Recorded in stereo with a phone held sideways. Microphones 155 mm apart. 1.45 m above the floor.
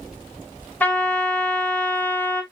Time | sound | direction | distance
0.8 | a trumpet | 10° left (ahead or behind) | 1.7 m